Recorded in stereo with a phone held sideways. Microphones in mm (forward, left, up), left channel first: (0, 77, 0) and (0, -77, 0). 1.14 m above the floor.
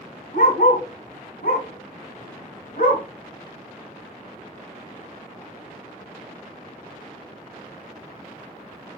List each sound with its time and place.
0.3 s a dog barking: 75° left (ahead or behind), 3.5 m; by 3.0 s 70° left (ahead or behind), 2.5 m